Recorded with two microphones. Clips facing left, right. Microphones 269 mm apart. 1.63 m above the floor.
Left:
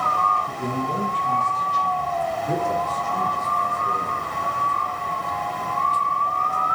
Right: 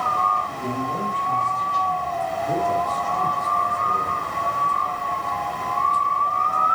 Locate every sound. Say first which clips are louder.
0.5 s a man speaking: left 2 dB; 85° left, 2 m; by 4.2 s 70° left (ahead or behind), 5.5 m